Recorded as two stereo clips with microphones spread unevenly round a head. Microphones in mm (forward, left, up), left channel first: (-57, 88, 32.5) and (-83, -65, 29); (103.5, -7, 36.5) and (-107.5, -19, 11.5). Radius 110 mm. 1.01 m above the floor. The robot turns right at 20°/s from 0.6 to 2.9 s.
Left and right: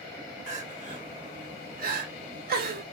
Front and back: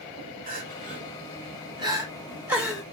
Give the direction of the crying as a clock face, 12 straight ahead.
4 o'clock.